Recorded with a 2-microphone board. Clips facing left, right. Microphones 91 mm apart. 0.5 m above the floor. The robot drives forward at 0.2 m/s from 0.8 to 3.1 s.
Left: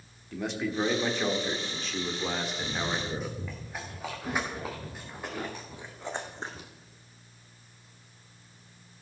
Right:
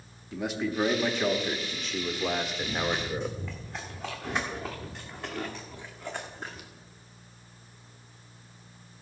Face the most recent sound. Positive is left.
turn(degrees=35)  # may be behind; listen again after turning